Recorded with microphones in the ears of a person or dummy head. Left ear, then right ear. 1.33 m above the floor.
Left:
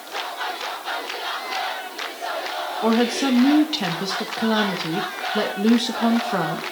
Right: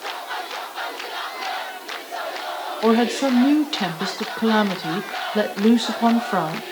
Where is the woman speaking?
15° right (ahead or behind), 1.4 m.